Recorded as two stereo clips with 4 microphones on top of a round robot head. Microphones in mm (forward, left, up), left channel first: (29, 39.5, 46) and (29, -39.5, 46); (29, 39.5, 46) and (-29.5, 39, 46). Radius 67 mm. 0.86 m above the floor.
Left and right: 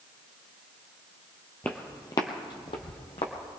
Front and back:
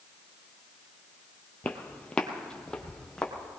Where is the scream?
I don't hear a scream.